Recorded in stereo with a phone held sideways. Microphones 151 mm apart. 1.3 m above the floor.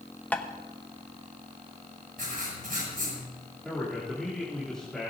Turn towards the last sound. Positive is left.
turn(degrees=5)  # may be behind; listen again after turning